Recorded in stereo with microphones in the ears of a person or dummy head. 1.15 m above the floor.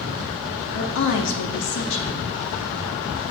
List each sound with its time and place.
0.7 s a woman speaking: 60° left (ahead or behind), 2.0 m